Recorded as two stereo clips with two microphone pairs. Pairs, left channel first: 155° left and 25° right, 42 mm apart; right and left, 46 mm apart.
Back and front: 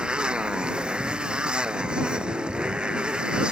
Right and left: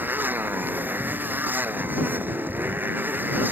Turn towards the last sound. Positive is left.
turn(degrees=40)